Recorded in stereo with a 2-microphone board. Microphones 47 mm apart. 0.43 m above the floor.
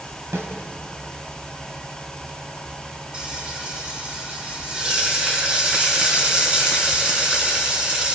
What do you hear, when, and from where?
0.3 s a snare drum: 65° right (ahead or behind), 3.5 m
3.1 s frying: 25° right (ahead or behind), 5 m